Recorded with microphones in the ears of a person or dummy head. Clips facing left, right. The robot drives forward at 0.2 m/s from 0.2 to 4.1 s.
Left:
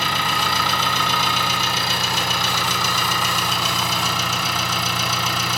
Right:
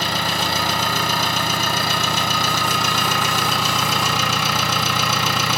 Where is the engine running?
40° right (ahead or behind), 1.8 m; by 5.6 s 65° right (ahead or behind), 1.3 m.